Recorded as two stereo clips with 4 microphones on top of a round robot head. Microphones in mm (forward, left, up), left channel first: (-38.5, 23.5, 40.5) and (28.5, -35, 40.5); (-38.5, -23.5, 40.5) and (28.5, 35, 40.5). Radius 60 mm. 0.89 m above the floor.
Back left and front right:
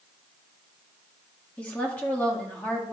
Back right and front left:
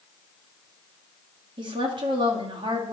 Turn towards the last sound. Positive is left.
turn(degrees=65)